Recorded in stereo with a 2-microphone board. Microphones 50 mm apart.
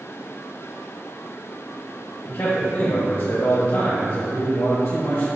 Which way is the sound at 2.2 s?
55° left (ahead or behind).